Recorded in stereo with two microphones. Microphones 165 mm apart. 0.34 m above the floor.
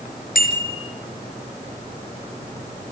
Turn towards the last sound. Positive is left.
turn(degrees=70)  # may be behind; listen again after turning